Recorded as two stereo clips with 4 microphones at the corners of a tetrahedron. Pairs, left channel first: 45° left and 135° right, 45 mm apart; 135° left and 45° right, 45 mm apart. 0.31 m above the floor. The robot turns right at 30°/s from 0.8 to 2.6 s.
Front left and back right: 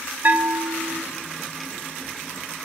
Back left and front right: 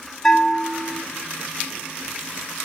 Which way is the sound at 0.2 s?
155° right.